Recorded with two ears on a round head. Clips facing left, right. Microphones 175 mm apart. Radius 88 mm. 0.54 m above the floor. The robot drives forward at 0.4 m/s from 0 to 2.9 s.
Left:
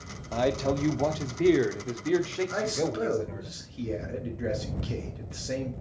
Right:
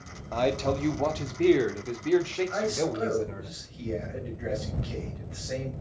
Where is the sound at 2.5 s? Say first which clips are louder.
Right 1 dB; 45° left (ahead or behind), 2 m; by 5.7 s 50° left (ahead or behind), 2 m.